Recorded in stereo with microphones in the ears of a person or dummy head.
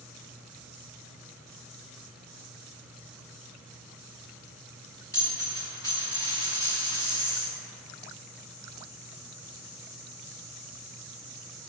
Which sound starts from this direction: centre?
A dropped coin, at 5.1 s.